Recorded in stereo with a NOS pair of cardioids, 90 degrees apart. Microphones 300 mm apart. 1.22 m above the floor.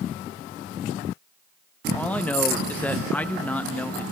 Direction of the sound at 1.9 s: 5° left.